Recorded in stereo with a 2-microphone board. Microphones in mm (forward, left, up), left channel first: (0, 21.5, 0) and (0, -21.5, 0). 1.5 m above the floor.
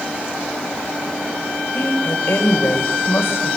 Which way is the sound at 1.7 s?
60° left (ahead or behind).